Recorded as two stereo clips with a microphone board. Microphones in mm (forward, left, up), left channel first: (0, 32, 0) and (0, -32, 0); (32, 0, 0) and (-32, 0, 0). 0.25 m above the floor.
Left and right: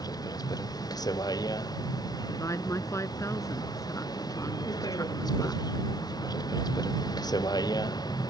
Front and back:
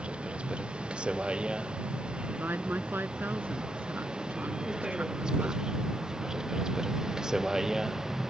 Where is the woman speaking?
125° left.